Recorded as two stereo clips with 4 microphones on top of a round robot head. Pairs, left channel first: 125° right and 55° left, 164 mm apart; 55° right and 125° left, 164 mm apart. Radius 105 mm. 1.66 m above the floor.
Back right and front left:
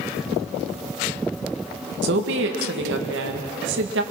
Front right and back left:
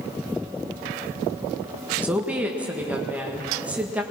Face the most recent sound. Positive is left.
turn(degrees=40)